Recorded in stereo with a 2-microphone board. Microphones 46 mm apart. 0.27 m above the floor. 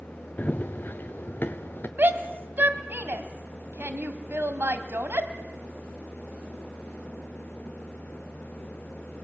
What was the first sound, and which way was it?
Running footsteps, 35° left (ahead or behind).